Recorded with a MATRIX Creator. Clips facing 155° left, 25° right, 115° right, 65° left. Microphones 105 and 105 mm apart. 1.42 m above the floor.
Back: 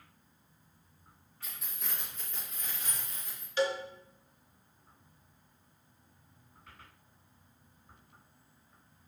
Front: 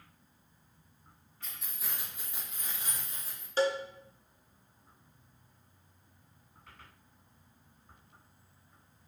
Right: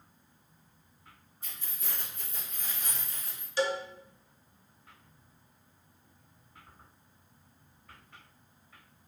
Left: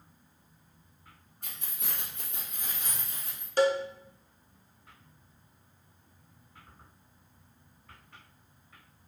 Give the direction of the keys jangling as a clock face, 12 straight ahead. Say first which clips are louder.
Even, left 1 dB; 10 o'clock.